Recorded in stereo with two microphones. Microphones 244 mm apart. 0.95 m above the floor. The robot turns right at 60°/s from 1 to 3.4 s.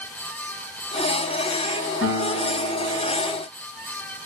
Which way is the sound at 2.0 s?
110° left.